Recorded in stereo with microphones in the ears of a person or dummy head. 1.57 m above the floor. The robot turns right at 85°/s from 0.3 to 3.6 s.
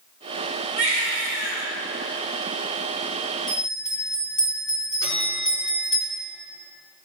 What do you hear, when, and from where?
0.8 s a baby crying: 150° right, 2.5 m; by 1.7 s 70° right, 2.5 m
3.5 s a bell: 40° left (ahead or behind), 2.5 m; by 6.0 s 30° left (ahead or behind), 2.5 m
5.0 s a bell: 70° left (ahead or behind), 4.5 m